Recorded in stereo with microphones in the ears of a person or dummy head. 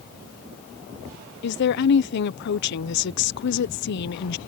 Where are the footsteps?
I don't hear footsteps.